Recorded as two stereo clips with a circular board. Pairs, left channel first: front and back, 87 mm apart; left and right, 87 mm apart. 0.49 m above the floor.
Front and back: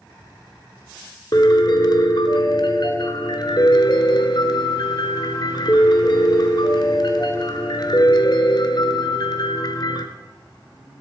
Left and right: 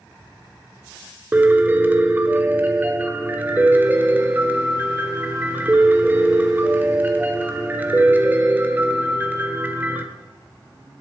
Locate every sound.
1.3 s a piano: 25° right, 1.3 m